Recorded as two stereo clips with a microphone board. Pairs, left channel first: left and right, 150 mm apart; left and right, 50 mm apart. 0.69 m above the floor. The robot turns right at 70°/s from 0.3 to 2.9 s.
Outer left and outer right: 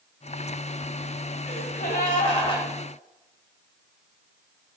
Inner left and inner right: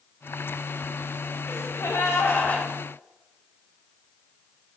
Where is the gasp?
70° left, 1.5 m; by 2.7 s 155° left, 1.5 m.